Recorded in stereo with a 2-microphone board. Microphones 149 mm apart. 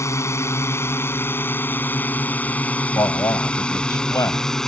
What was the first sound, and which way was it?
A drone, 20° left (ahead or behind).